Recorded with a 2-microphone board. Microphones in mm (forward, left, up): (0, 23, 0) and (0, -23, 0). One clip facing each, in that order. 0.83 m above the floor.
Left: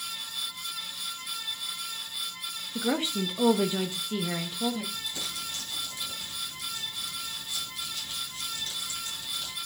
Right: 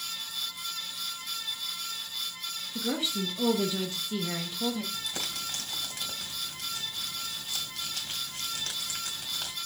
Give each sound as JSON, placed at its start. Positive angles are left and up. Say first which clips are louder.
{"t": 2.8, "sound": "a woman speaking", "louder": "left 3 dB", "side_deg": 40, "distance_m": 1.2}
{"t": 4.9, "sound": "crumpling", "louder": "even", "side_deg": -75, "distance_m": 2.5}